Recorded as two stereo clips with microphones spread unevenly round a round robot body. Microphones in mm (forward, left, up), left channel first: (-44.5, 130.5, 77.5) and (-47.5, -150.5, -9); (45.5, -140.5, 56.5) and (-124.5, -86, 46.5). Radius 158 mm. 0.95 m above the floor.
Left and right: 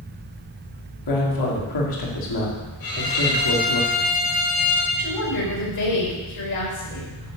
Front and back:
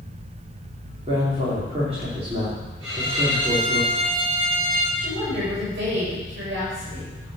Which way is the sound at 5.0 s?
115° left.